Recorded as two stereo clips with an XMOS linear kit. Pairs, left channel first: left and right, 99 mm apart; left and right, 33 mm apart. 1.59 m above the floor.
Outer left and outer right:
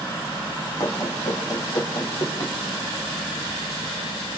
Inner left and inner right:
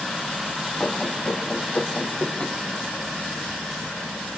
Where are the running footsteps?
35° left (ahead or behind), 4.5 m; by 2.5 s 45° left (ahead or behind), 5 m.